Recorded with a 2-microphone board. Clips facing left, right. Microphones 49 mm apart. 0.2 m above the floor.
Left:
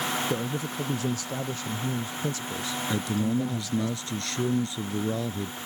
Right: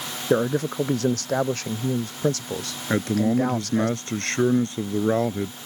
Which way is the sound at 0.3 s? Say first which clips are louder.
Right 8 dB; 60° right (ahead or behind).